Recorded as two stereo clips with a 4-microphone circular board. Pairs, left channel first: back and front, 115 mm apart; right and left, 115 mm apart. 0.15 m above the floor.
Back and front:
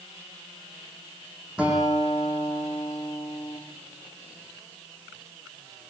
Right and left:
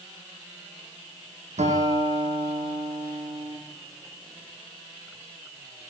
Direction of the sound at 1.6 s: 80° left.